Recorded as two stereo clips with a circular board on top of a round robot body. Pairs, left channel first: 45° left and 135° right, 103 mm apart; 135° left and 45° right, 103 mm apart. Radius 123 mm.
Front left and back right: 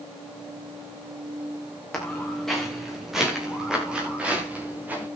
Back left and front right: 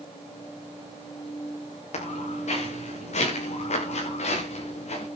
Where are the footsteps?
130° left, 7.5 m; by 5.1 s 150° left, 7.5 m.